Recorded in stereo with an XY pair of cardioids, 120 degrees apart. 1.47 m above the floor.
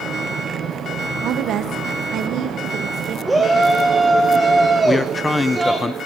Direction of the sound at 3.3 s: 10° right.